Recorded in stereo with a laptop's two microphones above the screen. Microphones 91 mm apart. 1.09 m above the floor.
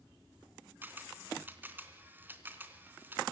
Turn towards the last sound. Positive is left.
turn(degrees=-20)  # may be behind; listen again after turning